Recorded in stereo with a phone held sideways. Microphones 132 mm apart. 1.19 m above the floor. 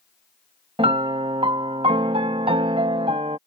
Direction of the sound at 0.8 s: 45° right (ahead or behind).